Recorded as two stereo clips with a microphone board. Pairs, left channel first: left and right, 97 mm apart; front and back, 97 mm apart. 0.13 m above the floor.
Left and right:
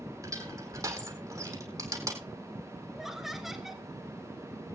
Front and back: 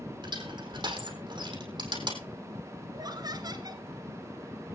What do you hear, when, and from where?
0.2 s crushing: 140° right, 4 m
2.9 s laughter: 175° right, 1.9 m